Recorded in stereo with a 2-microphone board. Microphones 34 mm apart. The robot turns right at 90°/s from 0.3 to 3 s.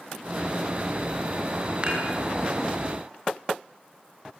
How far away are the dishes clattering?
About 6.5 m.